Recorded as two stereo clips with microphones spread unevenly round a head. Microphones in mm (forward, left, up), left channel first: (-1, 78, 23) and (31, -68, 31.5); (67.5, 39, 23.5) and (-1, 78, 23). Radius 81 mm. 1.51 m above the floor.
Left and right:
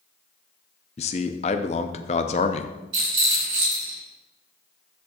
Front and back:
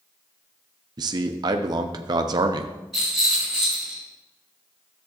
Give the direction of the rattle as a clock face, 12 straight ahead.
4 o'clock.